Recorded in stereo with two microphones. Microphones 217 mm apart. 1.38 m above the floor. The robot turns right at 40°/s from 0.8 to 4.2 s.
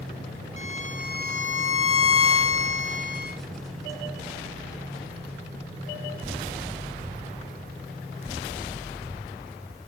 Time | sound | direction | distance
0.6 | a violin | 30° left | 0.8 m